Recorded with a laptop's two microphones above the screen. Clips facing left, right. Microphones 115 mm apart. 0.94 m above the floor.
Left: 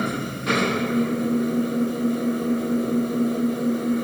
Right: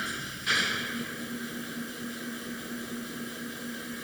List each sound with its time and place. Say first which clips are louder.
0.0 s an engine running: left 12 dB; 55° left (ahead or behind)